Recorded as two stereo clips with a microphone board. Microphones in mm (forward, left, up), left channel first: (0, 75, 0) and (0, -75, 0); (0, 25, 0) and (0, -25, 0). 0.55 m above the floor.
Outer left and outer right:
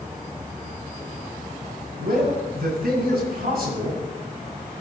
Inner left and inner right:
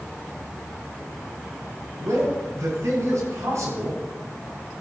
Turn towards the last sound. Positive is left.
turn(degrees=-80)